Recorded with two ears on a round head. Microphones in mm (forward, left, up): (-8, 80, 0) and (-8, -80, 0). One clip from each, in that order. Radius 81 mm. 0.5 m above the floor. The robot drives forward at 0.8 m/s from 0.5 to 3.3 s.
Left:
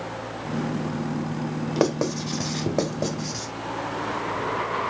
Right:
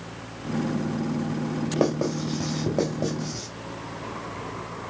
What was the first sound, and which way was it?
Writing, 45° left (ahead or behind).